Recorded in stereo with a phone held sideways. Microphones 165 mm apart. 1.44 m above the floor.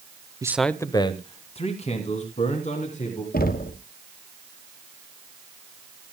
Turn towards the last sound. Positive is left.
turn(degrees=65)  # may be behind; listen again after turning